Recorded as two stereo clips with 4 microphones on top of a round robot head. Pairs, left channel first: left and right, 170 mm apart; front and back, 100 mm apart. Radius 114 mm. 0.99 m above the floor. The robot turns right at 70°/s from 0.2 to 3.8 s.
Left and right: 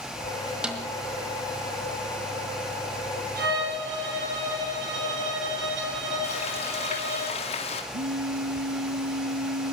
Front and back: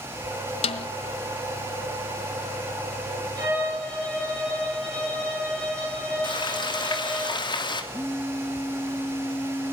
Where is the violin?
115° right, 8.5 m; by 7.2 s 85° right, 8.5 m.